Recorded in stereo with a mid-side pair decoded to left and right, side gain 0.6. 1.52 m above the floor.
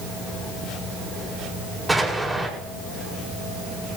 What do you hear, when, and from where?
1.9 s an explosion: 10° right, 8 m